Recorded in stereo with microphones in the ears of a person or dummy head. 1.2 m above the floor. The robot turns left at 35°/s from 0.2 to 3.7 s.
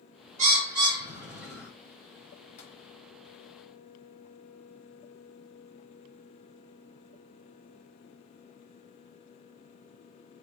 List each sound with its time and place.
0.4 s a bird: 35° right (ahead or behind), 1.1 m; by 1.7 s 5° left (ahead or behind), 1.1 m
2.6 s tapping: 40° left (ahead or behind), 1.3 m; by 2.7 s 35° left (ahead or behind), 1.3 m